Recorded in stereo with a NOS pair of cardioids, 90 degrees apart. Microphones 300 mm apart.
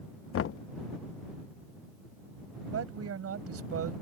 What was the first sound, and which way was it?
Knocking, 45° left.